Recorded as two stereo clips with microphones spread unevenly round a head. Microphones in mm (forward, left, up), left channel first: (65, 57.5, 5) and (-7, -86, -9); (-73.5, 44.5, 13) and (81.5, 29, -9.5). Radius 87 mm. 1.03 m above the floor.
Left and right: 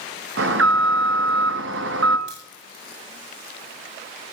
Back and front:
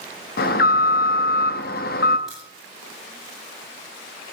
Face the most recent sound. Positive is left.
turn(degrees=-95)